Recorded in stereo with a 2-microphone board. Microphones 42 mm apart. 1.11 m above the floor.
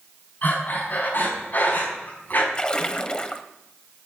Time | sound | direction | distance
0.4 | breathing | 45° left (ahead or behind) | 5.5 m
2.5 | a splash | 25° left (ahead or behind) | 1.1 m